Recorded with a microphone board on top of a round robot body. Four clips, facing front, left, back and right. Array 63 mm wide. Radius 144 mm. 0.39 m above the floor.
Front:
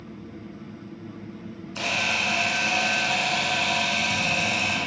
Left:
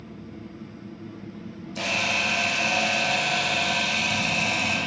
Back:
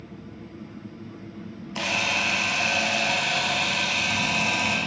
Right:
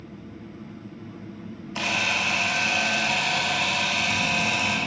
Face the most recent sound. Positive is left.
turn(degrees=-130)